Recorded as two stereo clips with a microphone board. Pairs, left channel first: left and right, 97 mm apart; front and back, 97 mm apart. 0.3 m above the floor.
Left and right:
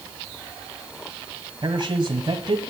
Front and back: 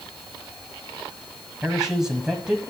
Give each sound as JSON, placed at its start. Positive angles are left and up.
{"t": 1.6, "sound": "a man speaking", "azimuth_deg": -100, "distance_m": 1.4}